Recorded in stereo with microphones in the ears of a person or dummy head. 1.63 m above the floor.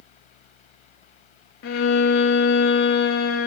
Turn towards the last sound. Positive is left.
turn(degrees=70)  # may be behind; listen again after turning